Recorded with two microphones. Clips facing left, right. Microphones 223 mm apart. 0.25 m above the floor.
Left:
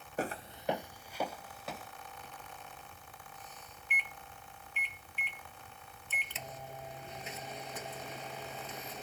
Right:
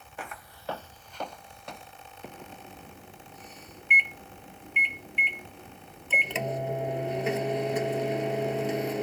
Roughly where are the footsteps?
Left.